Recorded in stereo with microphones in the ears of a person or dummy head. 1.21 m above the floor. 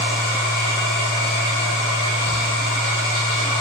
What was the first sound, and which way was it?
A machine running, 60° right (ahead or behind).